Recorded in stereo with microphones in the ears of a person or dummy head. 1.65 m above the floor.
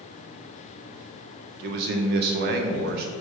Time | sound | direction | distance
1.6 | a man speaking | 60° right (ahead or behind) | 0.5 m